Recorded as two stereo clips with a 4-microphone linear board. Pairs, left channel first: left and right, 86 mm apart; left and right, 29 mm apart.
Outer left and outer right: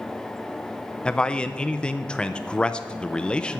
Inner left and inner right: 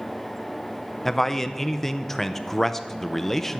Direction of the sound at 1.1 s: 10° left (ahead or behind).